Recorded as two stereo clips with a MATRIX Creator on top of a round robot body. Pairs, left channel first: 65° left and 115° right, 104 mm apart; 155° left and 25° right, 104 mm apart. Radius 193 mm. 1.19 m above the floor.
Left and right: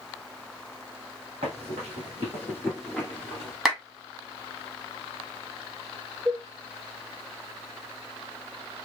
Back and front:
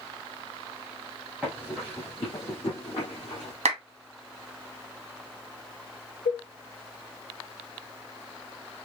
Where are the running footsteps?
95° right, 1.2 m; by 3.5 s 140° left, 1.6 m.